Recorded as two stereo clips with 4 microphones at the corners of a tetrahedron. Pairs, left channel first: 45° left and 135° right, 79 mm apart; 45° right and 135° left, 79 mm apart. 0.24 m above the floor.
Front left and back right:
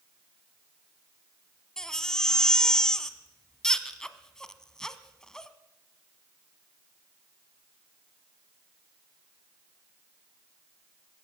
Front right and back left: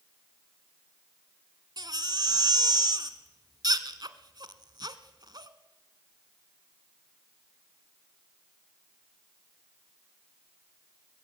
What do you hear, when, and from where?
1.8 s a baby crying: 125° left, 1.0 m